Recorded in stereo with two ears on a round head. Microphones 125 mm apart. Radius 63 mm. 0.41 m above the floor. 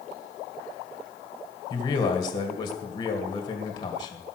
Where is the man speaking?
35° left (ahead or behind), 2 m.